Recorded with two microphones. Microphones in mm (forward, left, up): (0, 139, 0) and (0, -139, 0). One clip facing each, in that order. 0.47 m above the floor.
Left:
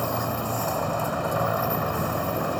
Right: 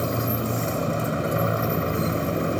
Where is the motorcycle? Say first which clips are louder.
Right 3 dB; 25° right (ahead or behind).